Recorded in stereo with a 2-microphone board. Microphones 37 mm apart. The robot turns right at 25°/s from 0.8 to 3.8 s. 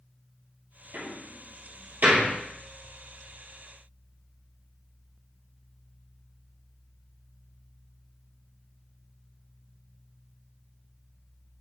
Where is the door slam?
70° right (ahead or behind), 2.5 m; by 2.3 s 45° right (ahead or behind), 2.5 m.